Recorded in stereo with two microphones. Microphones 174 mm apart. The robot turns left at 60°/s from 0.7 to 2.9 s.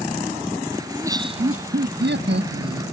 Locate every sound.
0.9 s laughter: 5° right; by 2.8 s 125° right